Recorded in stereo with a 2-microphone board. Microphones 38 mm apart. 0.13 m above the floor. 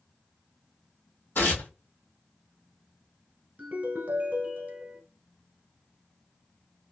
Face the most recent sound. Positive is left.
turn(degrees=-40)  # may be behind; listen again after turning